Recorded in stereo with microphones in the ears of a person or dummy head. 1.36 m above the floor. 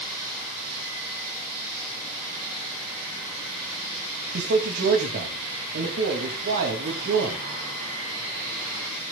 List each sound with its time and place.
4.3 s a man speaking: 55° right (ahead or behind), 2.5 m